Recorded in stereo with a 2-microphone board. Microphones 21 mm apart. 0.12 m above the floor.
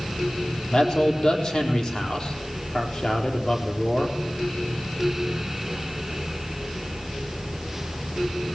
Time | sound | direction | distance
0.7 | a man speaking | 55° left (ahead or behind) | 4 m